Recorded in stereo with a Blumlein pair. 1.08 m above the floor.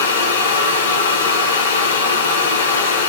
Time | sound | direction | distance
0.0 | a fan | 60° left | 1.9 m